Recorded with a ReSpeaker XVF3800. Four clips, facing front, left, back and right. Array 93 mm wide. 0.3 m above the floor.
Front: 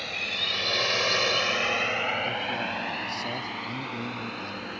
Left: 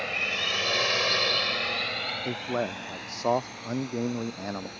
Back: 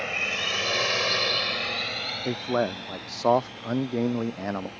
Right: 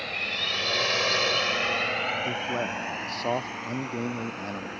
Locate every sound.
0.0 s a drone: 150° left; by 4.8 s 35° right
2.2 s a man speaking: 170° left